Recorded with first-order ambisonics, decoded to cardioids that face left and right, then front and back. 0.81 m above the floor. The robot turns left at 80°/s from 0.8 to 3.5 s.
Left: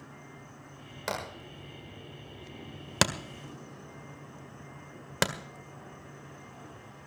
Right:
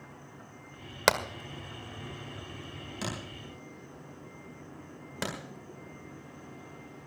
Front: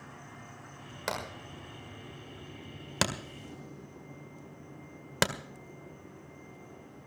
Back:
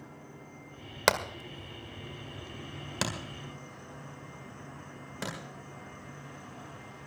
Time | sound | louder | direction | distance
0.0 | an insect | even, front 1 dB | 10° left | 6 m
1.1 | hammering | right 9 dB, back 9 dB | 130° right | 1.6 m